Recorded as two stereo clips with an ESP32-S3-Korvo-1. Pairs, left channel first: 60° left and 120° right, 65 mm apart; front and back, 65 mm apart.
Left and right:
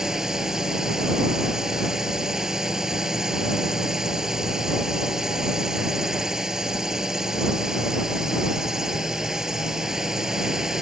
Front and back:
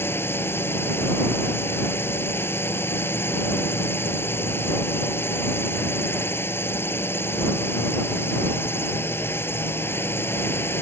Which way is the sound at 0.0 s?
40° right.